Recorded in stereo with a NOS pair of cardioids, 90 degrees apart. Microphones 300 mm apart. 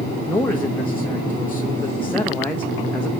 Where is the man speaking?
5° left, 1.3 m.